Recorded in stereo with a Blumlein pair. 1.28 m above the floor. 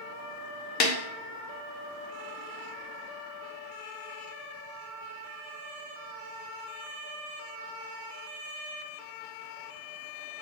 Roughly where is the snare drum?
Ahead left.